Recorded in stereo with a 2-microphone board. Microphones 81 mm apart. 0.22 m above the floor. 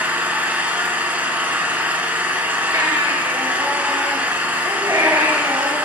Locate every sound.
0.0 s an engine running: 20° right (ahead or behind), 0.9 m
2.7 s a baby crying: 55° right (ahead or behind), 2 m